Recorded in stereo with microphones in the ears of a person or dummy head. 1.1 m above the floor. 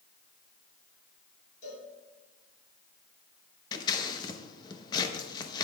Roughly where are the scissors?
Left.